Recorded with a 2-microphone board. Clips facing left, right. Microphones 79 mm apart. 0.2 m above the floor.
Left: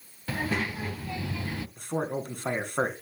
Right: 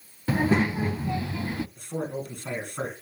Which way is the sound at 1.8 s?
55° left (ahead or behind).